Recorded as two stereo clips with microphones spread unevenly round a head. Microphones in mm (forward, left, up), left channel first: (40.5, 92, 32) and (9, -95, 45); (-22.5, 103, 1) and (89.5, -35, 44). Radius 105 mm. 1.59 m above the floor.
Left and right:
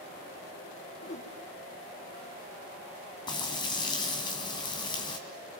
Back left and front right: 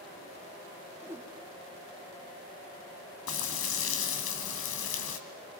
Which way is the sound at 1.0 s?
25° left.